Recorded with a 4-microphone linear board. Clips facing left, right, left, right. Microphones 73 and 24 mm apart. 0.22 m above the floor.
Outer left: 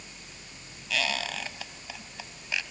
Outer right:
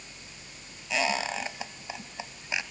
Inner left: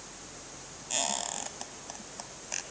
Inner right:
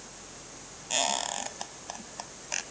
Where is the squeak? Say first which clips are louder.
Outer right 3 dB, inner right 4 dB; 20° right (ahead or behind), 1.0 m.